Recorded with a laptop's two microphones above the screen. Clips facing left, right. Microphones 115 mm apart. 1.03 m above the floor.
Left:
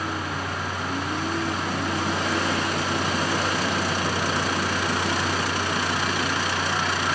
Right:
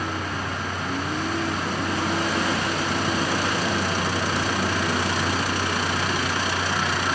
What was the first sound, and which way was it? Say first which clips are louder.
A fan: even; 5° left (ahead or behind).